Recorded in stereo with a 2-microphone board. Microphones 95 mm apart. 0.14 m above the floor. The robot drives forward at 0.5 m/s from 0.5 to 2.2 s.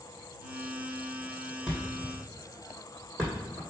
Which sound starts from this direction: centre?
A thud, at 1.7 s.